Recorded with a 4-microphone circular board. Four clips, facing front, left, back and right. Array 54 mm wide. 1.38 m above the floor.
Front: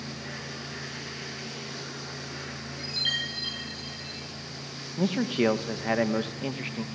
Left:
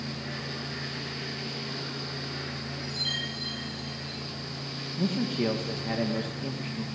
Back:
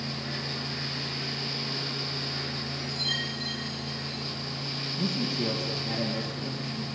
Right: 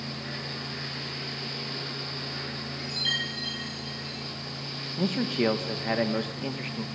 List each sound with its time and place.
2.8 s a chime: 35° right, 5.5 m
5.0 s a man speaking: 35° right, 1.9 m